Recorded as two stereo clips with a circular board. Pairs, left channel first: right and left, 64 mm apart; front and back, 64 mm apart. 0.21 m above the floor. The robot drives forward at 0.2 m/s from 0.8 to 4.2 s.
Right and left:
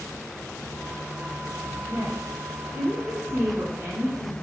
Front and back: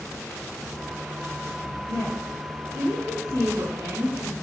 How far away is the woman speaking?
About 2.5 m.